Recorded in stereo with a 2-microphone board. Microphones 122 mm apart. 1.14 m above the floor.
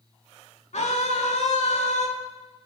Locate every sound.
0.7 s a scream: 65° left (ahead or behind), 2 m